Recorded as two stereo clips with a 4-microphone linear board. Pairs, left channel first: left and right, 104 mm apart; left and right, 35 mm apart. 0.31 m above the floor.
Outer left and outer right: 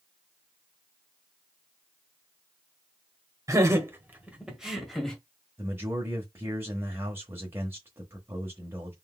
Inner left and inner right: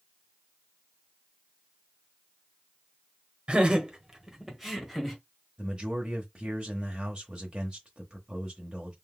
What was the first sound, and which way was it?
Laughter, 30° right (ahead or behind).